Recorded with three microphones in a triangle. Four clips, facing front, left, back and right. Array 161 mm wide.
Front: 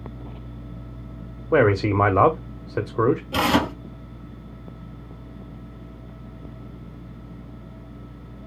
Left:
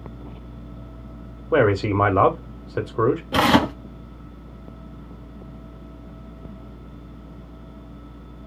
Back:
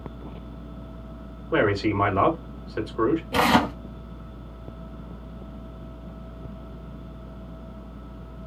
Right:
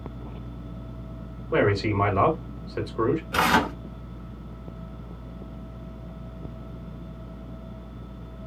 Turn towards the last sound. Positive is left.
turn(degrees=85)